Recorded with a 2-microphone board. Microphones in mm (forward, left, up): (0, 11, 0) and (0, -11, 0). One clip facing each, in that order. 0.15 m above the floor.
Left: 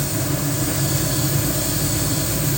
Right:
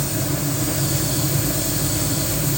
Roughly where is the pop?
No pop in this recording.